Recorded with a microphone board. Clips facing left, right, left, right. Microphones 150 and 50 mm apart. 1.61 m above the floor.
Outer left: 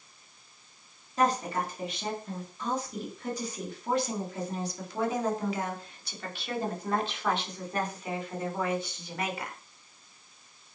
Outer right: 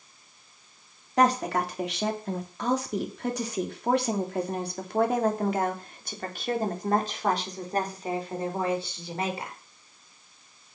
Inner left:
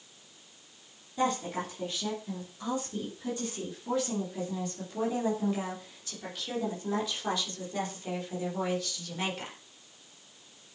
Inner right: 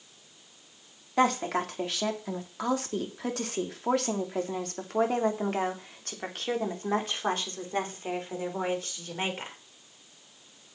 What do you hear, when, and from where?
1.2 s a woman speaking: 75° right (ahead or behind), 3 m; by 9.6 s 30° right (ahead or behind), 4.5 m